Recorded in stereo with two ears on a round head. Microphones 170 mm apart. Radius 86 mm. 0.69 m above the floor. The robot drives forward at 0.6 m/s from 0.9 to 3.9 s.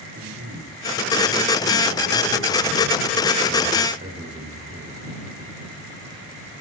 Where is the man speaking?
65° right (ahead or behind), 2 m; by 5.0 s 50° right (ahead or behind), 2.5 m.